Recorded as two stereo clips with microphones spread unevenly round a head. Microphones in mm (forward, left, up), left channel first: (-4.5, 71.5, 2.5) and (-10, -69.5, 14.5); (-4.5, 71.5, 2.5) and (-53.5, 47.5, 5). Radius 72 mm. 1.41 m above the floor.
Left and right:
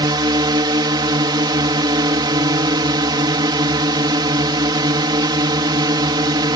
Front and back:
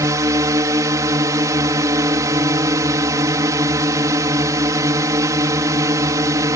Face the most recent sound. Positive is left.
turn(degrees=-155)